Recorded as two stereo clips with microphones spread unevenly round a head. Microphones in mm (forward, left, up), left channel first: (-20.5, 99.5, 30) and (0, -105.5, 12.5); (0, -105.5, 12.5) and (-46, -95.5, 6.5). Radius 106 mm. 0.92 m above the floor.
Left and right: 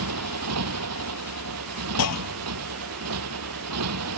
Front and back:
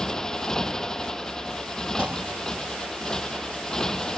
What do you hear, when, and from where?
0.0 s a motorcycle: 90° right
2.0 s a clunk: 95° left